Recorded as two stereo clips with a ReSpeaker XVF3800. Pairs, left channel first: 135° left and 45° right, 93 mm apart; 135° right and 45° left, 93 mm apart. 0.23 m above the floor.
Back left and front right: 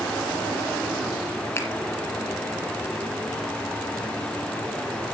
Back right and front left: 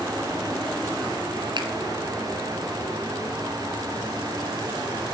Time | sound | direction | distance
1.6 | a finger snap | 75° left | 3.5 m